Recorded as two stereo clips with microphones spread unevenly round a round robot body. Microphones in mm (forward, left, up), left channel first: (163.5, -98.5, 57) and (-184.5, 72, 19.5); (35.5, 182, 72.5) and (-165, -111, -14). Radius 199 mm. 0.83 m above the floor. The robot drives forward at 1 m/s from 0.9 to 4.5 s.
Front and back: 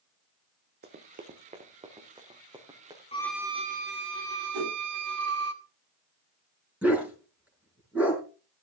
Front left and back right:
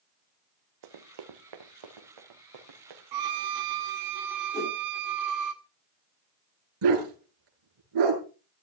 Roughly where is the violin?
Right.